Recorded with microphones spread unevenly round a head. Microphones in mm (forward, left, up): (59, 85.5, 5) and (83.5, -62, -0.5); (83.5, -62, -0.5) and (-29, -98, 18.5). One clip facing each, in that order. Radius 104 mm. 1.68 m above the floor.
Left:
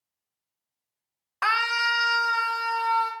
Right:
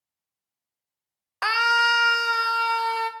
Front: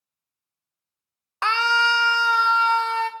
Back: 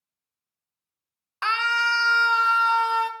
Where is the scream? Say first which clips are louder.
Right 4 dB, front 4 dB; 30° right, 0.7 m; by 3.1 s 95° right, 1.1 m.